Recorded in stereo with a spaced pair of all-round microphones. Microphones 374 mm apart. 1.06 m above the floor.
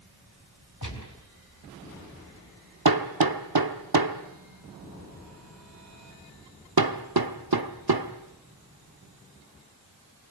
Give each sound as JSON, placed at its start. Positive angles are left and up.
{"t": 0.8, "sound": "a gunshot", "side_deg": 55, "distance_m": 3.5}
{"t": 2.9, "sound": "hammering", "side_deg": -70, "distance_m": 1.3}